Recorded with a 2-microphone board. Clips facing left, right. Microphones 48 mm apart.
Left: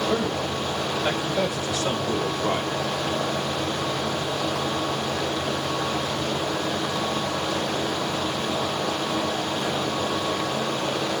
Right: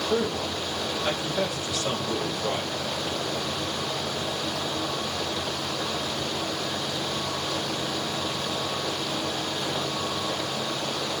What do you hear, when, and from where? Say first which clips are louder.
0.1 s a man speaking: left 2 dB; 20° left (ahead or behind), 3 m; by 2.7 s 30° left (ahead or behind), 2.0 m